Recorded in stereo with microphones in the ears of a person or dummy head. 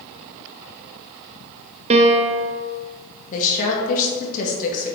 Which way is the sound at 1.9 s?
35° right (ahead or behind).